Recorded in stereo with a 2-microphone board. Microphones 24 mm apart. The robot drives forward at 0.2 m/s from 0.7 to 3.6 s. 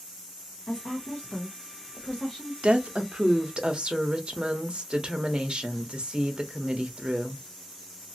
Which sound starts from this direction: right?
A woman speaking, at 2.6 s.